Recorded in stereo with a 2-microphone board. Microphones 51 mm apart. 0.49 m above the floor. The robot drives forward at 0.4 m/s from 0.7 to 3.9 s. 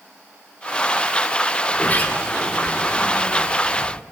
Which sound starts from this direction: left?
A sliding door, at 1.7 s.